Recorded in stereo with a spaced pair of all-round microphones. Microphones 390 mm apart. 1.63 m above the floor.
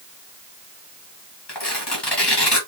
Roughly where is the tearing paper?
Left.